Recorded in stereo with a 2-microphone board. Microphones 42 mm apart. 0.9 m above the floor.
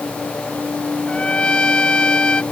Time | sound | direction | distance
1.1 | a trumpet | 25° left (ahead or behind) | ?